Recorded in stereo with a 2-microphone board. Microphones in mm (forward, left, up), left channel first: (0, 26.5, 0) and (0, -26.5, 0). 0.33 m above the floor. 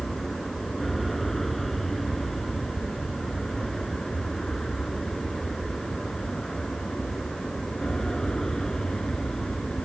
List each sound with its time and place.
0.0 s an aircraft: centre (ahead or behind); by 9.9 s 15° left (ahead or behind)